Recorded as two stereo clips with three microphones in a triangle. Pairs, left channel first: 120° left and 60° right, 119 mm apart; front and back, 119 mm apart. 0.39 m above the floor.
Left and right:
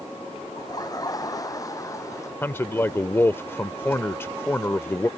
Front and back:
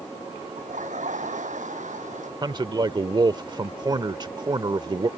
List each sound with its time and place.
0.6 s laughter: straight behind; by 2.3 s 175° right
2.4 s a man speaking: straight behind